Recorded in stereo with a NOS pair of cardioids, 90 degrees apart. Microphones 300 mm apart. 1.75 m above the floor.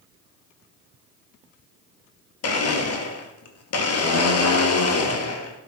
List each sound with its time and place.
2.4 s a blender: 55° left, 2.5 m